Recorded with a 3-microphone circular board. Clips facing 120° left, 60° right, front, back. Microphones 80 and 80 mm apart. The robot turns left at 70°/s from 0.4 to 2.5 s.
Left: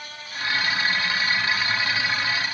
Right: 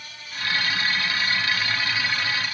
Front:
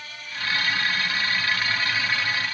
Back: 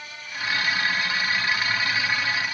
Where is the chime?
No chime in this recording.